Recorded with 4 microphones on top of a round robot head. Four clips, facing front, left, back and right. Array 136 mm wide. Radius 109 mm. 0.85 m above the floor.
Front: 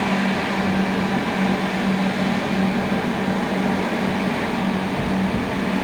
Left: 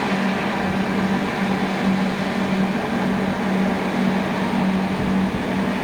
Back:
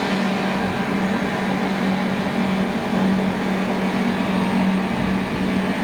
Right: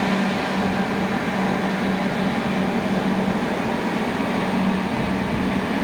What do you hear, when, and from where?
Only background noise.